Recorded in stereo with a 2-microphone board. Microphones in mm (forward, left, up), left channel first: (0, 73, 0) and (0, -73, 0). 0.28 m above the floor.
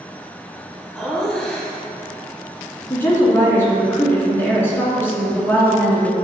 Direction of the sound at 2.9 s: 15° left (ahead or behind).